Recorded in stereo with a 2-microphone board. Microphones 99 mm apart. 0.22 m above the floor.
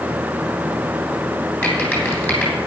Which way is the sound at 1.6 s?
20° left (ahead or behind).